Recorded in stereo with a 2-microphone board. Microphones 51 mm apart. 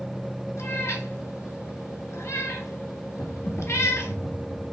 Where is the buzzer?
No buzzer in this recording.